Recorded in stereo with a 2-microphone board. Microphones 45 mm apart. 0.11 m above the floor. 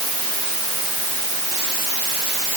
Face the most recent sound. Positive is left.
No sound to turn to.